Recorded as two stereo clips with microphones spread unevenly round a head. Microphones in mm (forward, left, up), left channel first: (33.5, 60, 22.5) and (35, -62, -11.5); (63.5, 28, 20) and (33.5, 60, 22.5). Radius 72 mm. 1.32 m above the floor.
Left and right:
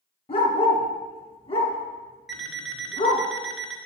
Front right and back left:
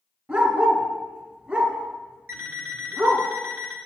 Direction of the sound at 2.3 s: 165° left.